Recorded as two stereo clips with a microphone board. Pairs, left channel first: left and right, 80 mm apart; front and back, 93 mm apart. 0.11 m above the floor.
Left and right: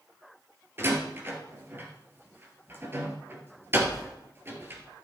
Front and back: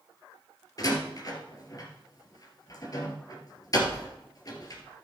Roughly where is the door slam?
Ahead right.